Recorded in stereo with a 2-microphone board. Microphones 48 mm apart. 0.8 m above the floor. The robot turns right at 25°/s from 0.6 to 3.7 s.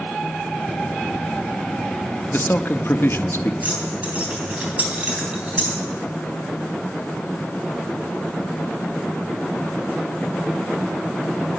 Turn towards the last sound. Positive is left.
turn(degrees=-35)  # may be behind; listen again after turning